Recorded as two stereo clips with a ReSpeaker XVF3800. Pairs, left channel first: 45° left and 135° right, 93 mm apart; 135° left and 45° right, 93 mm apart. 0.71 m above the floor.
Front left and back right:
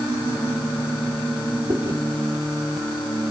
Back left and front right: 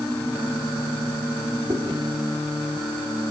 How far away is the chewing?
About 2.5 m.